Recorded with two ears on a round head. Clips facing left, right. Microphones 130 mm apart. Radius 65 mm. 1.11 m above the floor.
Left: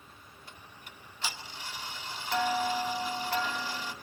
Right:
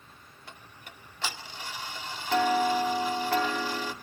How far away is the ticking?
About 2 m.